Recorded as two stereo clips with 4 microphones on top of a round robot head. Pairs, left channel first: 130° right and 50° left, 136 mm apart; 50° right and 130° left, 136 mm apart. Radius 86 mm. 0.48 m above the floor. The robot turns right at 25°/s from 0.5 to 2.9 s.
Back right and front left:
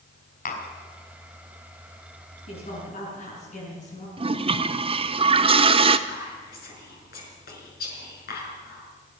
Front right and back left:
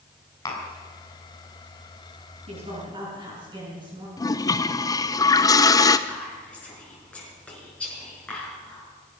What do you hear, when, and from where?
0.5 s tapping: 115° right, 3.5 m; by 0.7 s 110° right, 3.5 m
2.5 s a woman speaking: straight behind, 6 m; by 4.1 s 170° right, 6 m
4.2 s a toilet flushing: 10° left, 0.8 m
6.1 s whispering: 130° right, 6 m